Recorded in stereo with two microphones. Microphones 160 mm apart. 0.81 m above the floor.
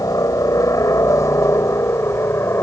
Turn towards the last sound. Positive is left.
turn(degrees=15)  # may be behind; listen again after turning